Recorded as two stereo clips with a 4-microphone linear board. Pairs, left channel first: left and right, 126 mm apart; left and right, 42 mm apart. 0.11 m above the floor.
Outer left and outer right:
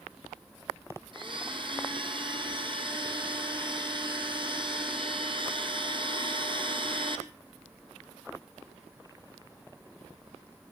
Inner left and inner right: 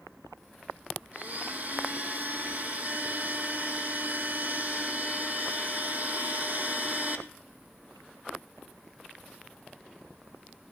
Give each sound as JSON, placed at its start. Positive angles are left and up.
{"t": 1.1, "sound": "a blender", "side_deg": -40, "distance_m": 1.9}